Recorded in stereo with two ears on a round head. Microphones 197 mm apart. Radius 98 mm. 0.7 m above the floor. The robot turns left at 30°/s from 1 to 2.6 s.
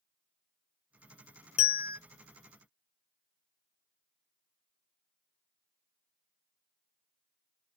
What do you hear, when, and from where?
1.6 s a bell: 30° left (ahead or behind), 0.6 m; by 2.0 s 20° left (ahead or behind), 0.6 m